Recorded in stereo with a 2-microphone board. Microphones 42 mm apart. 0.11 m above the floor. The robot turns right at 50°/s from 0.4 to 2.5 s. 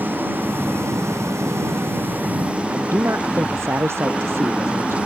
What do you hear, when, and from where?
0.0 s an engine running: 130° right; by 5.1 s 25° right
2.7 s a man speaking: 70° right (ahead or behind)